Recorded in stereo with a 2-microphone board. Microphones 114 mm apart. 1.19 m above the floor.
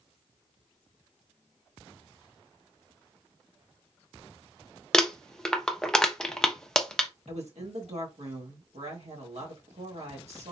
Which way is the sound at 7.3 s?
80° right.